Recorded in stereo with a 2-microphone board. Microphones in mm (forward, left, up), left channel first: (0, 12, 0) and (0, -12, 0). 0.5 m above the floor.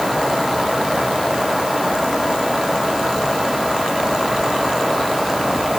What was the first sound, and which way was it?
Only background noise.